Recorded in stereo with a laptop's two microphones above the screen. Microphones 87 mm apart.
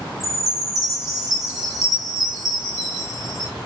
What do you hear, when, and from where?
0.2 s a chime: 5° right (ahead or behind), 1.8 m